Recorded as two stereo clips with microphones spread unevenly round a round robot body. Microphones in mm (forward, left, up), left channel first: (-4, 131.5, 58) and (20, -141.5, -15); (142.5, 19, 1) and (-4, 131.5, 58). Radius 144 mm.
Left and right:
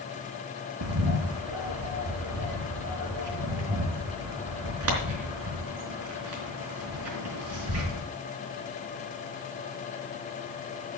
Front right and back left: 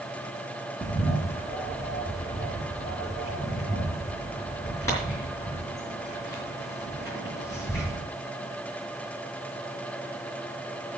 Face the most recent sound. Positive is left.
turn(degrees=-110)